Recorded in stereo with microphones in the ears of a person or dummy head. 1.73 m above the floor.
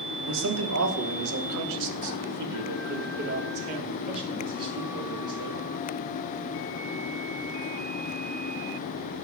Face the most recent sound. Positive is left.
turn(degrees=-25)  # may be behind; listen again after turning